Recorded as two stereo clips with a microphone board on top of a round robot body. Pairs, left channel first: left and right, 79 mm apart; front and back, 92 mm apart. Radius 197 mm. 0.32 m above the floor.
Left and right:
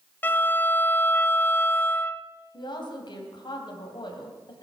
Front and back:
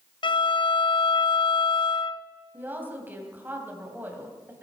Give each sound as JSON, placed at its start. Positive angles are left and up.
{"t": 0.2, "sound": "a violin", "azimuth_deg": 25, "distance_m": 0.7}
{"t": 2.5, "sound": "a woman speaking", "azimuth_deg": 110, "distance_m": 3.0}